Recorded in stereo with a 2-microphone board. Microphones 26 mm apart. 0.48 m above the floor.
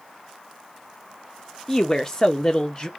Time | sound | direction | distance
1.7 | a woman speaking | 15° left (ahead or behind) | 0.8 m